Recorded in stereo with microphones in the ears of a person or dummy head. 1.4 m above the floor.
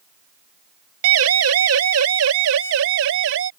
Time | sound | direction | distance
1.0 | a siren | 75° right (ahead or behind) | ?